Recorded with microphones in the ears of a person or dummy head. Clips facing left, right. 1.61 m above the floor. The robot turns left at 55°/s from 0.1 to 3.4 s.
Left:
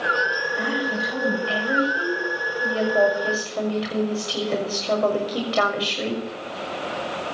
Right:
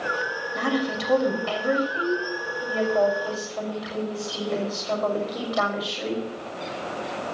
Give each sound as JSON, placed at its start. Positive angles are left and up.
{"t": 0.6, "sound": "a woman speaking", "azimuth_deg": -60, "distance_m": 6.0}